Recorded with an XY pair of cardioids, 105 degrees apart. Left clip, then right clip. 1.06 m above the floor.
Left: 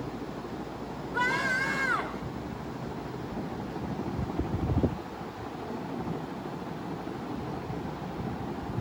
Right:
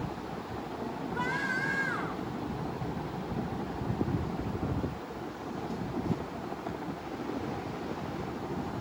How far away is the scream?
About 5 m.